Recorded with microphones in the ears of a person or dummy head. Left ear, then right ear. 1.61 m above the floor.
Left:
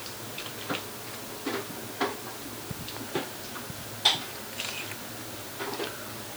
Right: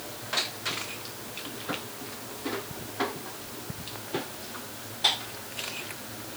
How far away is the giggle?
I don't hear a giggle.